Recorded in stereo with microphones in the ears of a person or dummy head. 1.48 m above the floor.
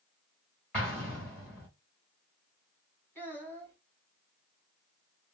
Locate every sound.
0.7 s an explosion: 5° left (ahead or behind), 1.3 m
3.1 s a child speaking: 10° left (ahead or behind), 2 m